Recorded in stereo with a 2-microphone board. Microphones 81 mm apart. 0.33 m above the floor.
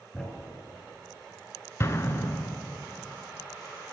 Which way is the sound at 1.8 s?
35° left (ahead or behind).